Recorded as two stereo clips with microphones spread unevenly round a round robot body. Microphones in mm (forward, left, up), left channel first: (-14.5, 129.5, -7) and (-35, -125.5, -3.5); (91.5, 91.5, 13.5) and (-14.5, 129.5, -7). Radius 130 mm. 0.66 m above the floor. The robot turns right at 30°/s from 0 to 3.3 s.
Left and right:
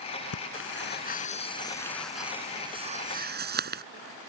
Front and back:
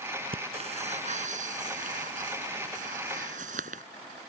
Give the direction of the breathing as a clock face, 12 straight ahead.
8 o'clock.